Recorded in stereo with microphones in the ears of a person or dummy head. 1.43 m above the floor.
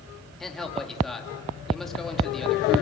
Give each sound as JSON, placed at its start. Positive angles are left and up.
{"t": 0.4, "sound": "a man speaking", "side_deg": 0, "distance_m": 3.0}